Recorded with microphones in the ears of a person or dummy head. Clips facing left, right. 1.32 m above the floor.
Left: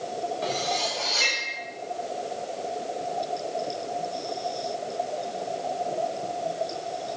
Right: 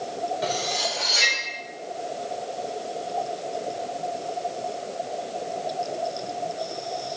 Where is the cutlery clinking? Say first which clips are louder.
Right 1 dB; 15° right (ahead or behind), 1.5 m.